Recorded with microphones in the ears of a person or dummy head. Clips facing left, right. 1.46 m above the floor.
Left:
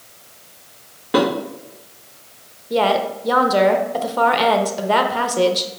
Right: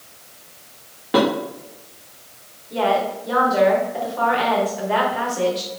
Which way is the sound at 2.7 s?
65° left (ahead or behind).